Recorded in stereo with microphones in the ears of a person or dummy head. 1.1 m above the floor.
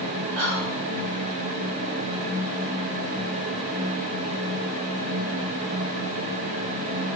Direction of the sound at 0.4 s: 60° right (ahead or behind).